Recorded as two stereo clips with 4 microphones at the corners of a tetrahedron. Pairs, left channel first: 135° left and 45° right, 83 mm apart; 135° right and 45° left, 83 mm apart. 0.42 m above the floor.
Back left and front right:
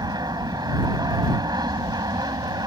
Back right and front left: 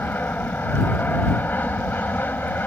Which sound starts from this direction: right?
An aircraft, at 0.0 s.